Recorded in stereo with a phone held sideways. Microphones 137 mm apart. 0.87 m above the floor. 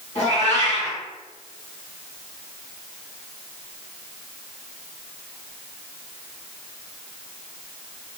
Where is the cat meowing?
60° left (ahead or behind), 1.9 m.